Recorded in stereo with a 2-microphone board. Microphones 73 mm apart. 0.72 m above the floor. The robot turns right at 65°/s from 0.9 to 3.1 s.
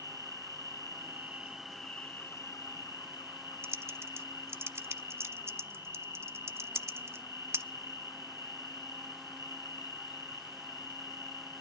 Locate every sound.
0.0 s an insect: 55° right, 1.9 m; by 11.6 s 90° left, 1.9 m
3.6 s typing on a keyboard: 35° right (ahead or behind), 0.7 m